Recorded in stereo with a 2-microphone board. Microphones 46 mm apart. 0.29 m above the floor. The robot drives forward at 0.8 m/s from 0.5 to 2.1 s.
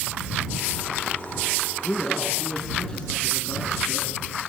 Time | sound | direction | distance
1.8 | a man speaking | 20° left (ahead or behind) | 4 m